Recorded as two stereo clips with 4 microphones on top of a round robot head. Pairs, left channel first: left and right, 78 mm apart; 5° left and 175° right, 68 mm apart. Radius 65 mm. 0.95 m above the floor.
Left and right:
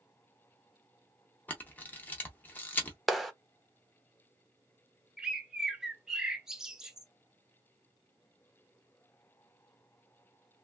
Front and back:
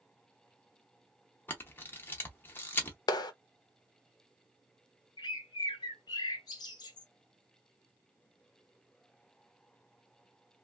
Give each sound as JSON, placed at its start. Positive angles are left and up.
{"t": 1.5, "sound": "a camera shutter", "azimuth_deg": 35, "distance_m": 0.5}
{"t": 3.1, "sound": "a clap", "azimuth_deg": 0, "distance_m": 0.7}
{"t": 5.2, "sound": "a bird", "azimuth_deg": -10, "distance_m": 0.5}